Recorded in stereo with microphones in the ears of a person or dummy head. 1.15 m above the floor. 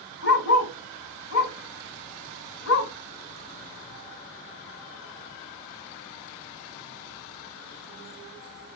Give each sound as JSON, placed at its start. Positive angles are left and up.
{"t": 0.2, "sound": "a dog barking", "side_deg": 65, "distance_m": 2.5}